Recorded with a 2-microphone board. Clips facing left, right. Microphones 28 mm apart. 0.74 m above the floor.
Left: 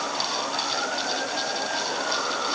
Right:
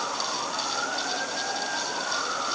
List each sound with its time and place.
Only background noise.